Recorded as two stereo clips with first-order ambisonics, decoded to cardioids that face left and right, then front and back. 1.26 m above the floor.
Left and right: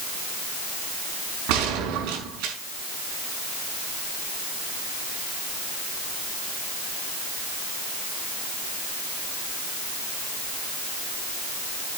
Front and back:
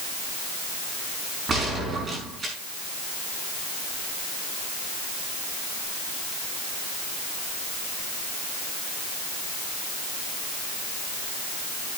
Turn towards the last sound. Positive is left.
turn(degrees=-110)